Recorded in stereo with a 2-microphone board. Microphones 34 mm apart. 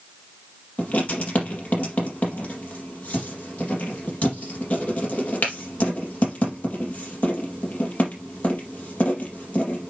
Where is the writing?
45° left (ahead or behind), 4.5 m.